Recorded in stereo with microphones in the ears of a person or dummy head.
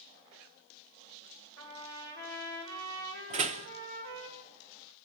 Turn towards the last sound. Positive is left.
turn(degrees=-35)  # may be behind; listen again after turning